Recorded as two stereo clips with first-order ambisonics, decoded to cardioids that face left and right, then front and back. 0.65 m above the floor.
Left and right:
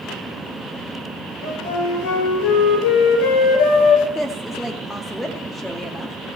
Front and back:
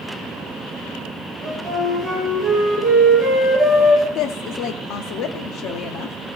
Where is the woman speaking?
5° left, 0.8 m.